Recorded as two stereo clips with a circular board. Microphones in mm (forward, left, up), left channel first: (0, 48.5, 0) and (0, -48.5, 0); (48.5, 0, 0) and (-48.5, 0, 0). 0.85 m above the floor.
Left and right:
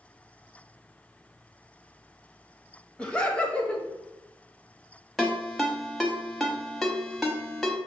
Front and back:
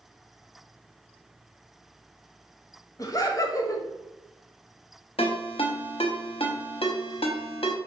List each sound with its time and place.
3.0 s laughter: 20° left, 0.8 m
5.2 s a ringtone: straight ahead, 0.8 m